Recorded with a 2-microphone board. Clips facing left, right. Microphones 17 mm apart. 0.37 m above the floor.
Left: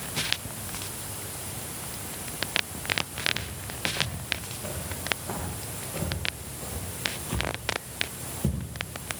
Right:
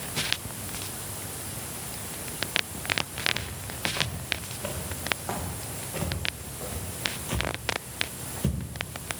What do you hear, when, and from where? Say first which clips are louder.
3.3 s footsteps: even; 80° right, 5.5 m; by 9.2 s 75° right (ahead or behind), 13.5 m